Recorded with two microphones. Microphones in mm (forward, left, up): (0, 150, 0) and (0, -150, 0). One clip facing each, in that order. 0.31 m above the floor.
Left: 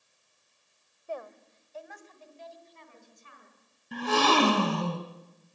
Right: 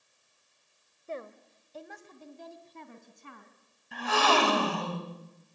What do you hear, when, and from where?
1.1 s a woman speaking: 20° right (ahead or behind), 1.4 m; by 3.5 s 65° right (ahead or behind), 3.5 m
3.9 s a gasp: 45° left (ahead or behind), 2.5 m